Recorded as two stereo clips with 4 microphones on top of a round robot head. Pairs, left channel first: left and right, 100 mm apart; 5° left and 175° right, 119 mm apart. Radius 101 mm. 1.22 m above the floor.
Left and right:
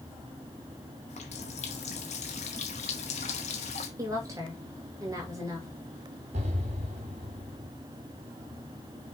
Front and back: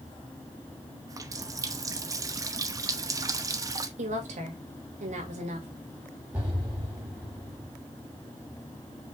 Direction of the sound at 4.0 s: 155° right.